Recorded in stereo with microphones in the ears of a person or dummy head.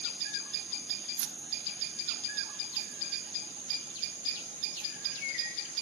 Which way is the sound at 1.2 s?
75° right (ahead or behind).